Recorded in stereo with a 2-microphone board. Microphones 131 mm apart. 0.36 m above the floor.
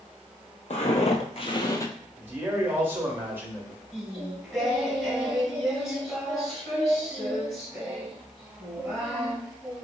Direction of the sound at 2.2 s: 15° right (ahead or behind).